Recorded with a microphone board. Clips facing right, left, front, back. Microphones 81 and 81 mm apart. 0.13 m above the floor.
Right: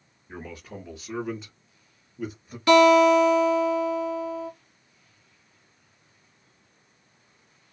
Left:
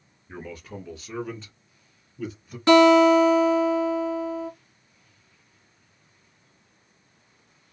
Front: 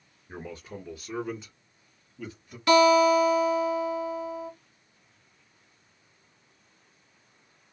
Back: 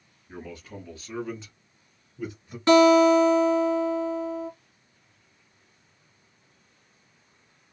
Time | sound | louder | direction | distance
0.3 | a man speaking | left 1 dB, even | straight ahead | 1.4 m
2.7 | a guitar | left 1 dB, back 3 dB | 135° left | 2 m